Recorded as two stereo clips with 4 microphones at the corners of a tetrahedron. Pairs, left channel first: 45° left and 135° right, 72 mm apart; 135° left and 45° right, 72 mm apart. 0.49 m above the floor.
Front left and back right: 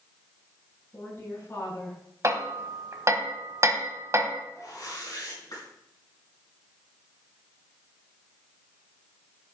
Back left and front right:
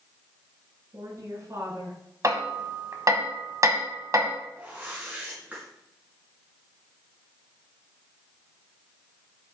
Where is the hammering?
90° right, 1.3 m.